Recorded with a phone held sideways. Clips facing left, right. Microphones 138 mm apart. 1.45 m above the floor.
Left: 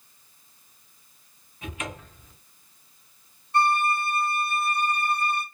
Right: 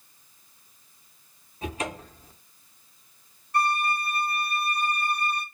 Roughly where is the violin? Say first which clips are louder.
Left 3 dB; left.